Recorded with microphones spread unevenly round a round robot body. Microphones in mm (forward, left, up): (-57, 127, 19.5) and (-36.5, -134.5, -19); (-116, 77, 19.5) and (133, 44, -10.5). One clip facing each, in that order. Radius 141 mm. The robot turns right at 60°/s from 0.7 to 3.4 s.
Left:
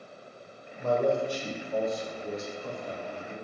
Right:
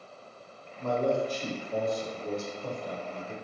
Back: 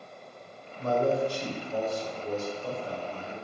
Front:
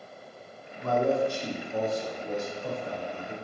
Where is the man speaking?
145° left, 1.2 m; by 3.3 s 60° right, 1.2 m.